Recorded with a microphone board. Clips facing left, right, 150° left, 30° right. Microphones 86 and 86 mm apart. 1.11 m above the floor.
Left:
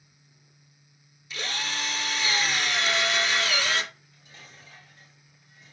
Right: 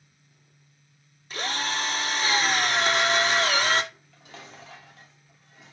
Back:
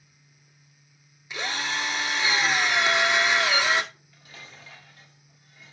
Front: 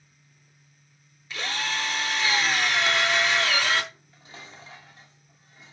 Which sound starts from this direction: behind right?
A drill, at 1.3 s.